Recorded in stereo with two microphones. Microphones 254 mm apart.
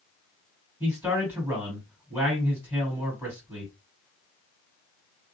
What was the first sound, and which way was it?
A man speaking, 5° right (ahead or behind).